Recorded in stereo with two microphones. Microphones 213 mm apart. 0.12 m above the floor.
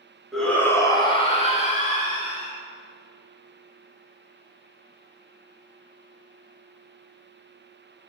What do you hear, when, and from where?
0.3 s a shout: centre (ahead or behind), 1.6 m; by 2.5 s 40° left (ahead or behind), 2.5 m